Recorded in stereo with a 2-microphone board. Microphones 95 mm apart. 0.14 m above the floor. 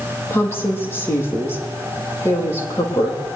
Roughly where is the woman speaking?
Left.